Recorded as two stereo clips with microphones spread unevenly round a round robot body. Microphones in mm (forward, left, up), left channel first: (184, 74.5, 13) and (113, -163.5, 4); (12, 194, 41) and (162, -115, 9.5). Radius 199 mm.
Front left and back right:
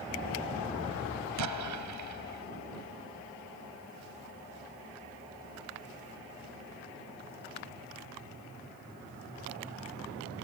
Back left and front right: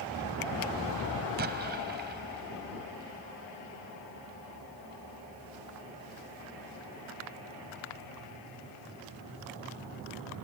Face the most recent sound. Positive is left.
turn(degrees=-130)